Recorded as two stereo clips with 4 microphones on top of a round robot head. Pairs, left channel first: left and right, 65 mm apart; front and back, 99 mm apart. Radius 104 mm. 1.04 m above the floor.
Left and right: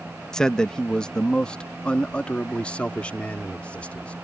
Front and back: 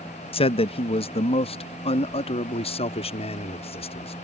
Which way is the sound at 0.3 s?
10° left.